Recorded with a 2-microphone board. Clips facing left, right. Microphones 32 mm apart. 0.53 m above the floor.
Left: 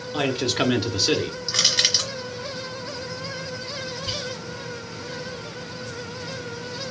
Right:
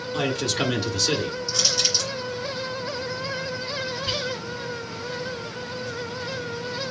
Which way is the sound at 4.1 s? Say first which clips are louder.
Right 3 dB; 15° right (ahead or behind).